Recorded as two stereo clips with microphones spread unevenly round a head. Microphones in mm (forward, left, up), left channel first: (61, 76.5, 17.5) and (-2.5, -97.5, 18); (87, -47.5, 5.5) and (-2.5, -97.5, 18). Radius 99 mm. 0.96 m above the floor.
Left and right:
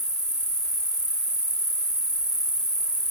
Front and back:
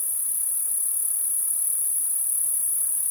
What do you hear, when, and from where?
0.0 s an insect: 25° right, 1.5 m